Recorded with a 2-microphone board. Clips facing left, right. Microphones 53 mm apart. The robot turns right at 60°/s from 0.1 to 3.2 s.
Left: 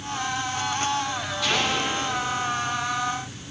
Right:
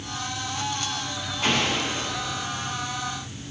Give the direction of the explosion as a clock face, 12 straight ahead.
5 o'clock.